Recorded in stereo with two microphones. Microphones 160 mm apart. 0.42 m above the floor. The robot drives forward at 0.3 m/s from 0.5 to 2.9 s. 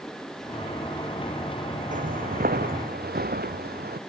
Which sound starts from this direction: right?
Footsteps, at 1.9 s.